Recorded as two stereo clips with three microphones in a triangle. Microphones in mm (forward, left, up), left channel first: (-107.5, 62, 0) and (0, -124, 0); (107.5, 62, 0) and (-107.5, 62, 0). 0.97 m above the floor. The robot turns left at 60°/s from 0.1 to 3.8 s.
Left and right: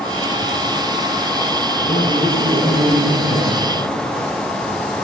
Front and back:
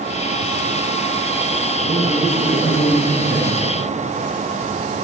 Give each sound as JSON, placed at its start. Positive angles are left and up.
{"t": 1.8, "sound": "a man speaking", "azimuth_deg": 175, "distance_m": 7.5}